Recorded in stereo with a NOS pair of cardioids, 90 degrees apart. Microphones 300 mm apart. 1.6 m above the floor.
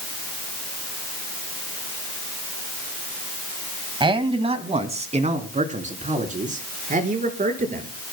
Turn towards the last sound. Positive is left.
turn(degrees=-25)